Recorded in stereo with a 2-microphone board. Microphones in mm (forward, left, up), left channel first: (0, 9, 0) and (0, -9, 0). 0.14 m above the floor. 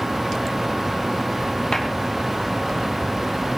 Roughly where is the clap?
Left.